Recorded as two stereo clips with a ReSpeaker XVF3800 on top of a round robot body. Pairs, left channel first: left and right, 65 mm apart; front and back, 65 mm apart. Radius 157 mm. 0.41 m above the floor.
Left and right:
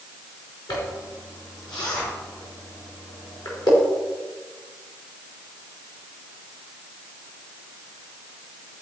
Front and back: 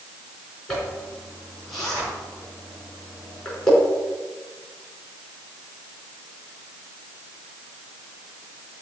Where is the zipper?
85° left, 5 m.